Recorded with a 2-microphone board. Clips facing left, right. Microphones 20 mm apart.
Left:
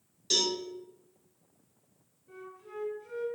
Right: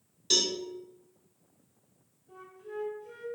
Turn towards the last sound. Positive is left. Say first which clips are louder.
# right 2 dB
turn(degrees=45)  # may be behind; listen again after turning